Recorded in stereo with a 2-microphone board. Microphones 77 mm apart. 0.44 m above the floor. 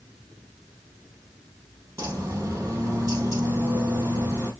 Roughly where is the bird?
Right.